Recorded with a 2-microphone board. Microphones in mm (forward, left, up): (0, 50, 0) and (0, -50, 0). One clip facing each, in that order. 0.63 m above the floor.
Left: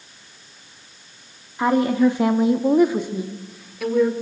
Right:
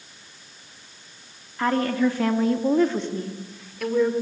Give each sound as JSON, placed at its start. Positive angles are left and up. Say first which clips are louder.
{"t": 1.6, "sound": "a woman speaking", "louder": "left 4 dB", "side_deg": 15, "distance_m": 1.1}